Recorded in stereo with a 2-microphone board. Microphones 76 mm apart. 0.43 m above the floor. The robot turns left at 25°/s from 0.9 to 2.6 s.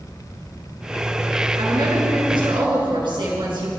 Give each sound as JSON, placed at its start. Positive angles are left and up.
{"t": 1.6, "sound": "a woman speaking", "side_deg": -70, "distance_m": 5.0}